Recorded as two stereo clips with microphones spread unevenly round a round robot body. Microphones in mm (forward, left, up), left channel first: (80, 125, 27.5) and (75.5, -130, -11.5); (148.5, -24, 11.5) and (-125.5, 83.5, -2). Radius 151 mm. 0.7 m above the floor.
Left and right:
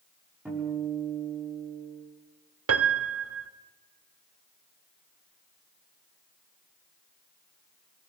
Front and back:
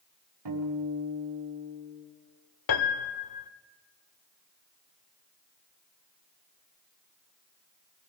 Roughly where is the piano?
Ahead right.